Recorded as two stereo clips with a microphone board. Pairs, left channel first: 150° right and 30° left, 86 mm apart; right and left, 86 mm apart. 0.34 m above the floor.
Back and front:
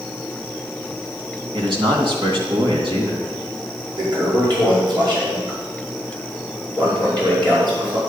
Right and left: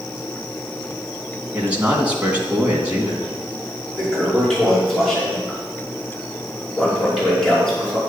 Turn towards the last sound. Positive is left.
turn(degrees=-5)